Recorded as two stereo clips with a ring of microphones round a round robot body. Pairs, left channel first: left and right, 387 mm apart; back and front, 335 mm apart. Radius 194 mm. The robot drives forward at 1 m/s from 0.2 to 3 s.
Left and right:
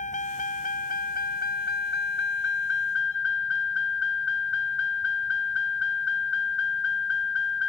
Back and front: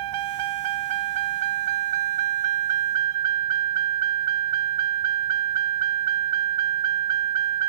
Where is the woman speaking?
No woman speaking in this recording.